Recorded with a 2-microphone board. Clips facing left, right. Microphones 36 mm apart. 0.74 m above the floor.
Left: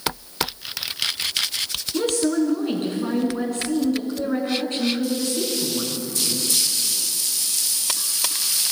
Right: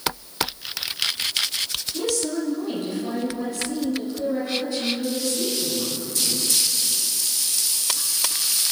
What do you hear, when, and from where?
1.9 s a woman speaking: 50° left (ahead or behind), 8 m